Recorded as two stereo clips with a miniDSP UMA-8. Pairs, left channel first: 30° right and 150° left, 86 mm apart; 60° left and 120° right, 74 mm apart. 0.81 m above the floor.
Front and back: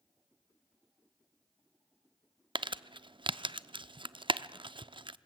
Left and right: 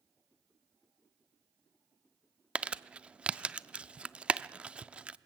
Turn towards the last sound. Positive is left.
turn(degrees=165)